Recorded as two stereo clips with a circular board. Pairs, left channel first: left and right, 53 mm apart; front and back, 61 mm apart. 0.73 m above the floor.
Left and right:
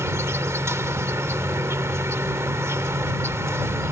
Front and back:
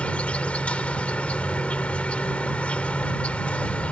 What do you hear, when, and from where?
0.0 s an insect: 65° right